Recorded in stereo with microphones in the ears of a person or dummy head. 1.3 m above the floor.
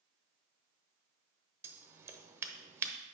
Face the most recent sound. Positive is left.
turn(degrees=-15)  # may be behind; listen again after turning